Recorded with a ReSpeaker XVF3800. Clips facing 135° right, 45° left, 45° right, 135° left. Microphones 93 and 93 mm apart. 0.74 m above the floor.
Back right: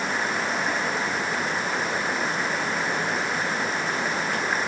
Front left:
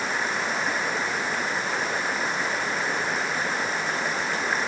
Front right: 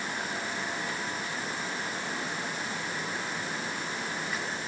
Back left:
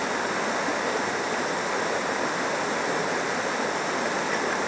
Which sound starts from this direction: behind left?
Running water, at 0.0 s.